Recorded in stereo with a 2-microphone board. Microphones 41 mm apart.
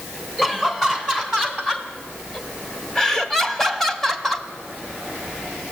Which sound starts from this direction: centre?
Laughter, at 0.4 s.